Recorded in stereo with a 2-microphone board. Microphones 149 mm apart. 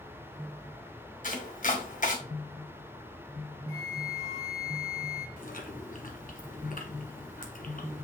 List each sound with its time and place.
1.2 s chopping: 60° left (ahead or behind), 1.6 m
3.7 s a flute: 45° right (ahead or behind), 2.5 m
5.4 s chewing: 65° left (ahead or behind), 1.5 m